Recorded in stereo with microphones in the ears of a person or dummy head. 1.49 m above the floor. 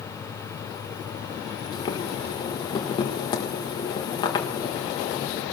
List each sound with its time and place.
1.7 s boiling: 25° left (ahead or behind), 1.6 m